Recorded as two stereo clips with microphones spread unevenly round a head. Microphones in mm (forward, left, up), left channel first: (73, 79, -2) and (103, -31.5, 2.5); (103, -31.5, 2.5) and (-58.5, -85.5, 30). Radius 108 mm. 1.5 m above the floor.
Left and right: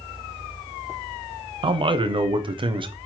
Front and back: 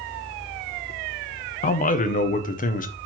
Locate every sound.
1.6 s a man speaking: 25° right, 0.6 m